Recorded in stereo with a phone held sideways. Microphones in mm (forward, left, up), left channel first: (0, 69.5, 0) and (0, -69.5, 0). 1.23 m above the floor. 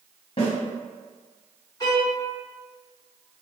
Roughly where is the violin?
Left.